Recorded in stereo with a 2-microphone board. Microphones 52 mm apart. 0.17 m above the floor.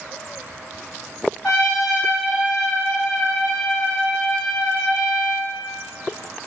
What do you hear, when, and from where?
1.4 s a trumpet: 10° left (ahead or behind), 1.8 m